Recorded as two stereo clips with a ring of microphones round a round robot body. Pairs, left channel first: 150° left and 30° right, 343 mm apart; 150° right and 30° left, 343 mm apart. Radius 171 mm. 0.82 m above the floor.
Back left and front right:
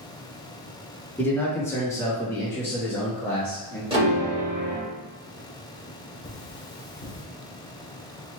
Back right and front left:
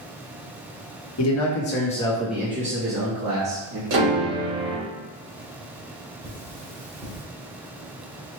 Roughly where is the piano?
Ahead left.